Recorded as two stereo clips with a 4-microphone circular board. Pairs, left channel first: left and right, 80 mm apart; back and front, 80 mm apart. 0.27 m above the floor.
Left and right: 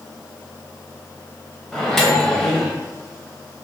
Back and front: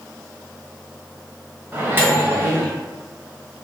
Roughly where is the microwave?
Ahead.